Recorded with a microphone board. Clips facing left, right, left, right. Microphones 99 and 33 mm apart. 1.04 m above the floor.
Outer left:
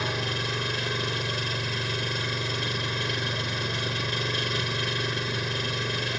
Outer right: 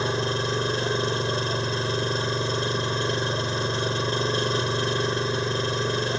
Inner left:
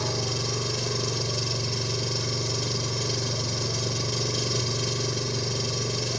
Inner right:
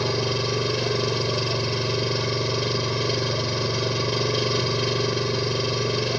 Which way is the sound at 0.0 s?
30° right (ahead or behind).